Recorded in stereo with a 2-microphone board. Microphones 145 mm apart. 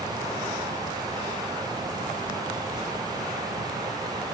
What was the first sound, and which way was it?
Only background noise.